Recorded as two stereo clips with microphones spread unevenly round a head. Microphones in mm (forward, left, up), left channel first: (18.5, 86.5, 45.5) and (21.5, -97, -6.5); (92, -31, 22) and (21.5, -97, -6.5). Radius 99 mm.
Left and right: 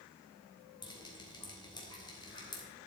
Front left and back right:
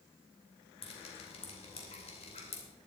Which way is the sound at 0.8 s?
20° left.